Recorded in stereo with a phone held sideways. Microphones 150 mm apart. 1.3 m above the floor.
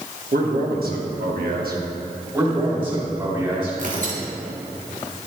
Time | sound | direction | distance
0.3 | a man speaking | 85° right | 1.4 m
2.3 | a man speaking | 30° right (ahead or behind) | 3 m
3.8 | tearing paper | 60° right (ahead or behind) | 1.4 m